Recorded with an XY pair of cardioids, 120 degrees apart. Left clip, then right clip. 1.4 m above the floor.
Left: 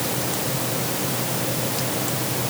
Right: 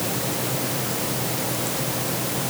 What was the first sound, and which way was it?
Only background noise.